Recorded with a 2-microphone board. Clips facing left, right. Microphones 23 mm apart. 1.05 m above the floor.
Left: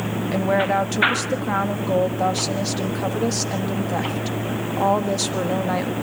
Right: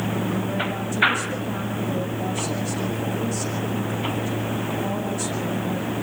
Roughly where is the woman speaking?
Left.